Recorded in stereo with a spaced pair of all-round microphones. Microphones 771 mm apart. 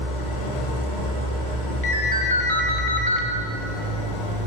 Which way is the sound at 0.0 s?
80° right.